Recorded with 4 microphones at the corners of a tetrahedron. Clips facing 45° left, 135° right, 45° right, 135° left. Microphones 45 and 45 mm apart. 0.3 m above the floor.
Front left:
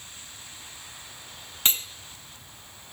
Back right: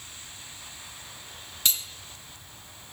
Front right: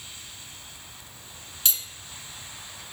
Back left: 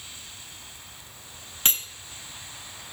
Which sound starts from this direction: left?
Cutlery clinking, at 1.6 s.